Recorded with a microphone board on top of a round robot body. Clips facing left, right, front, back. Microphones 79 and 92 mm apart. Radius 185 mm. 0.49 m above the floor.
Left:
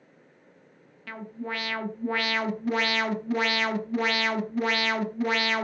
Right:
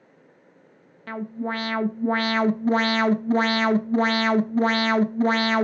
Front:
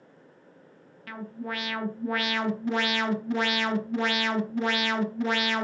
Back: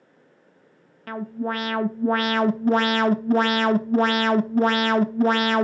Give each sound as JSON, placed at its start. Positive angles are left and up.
{"t": 1.1, "sound": "an alarm", "azimuth_deg": -140, "distance_m": 1.0}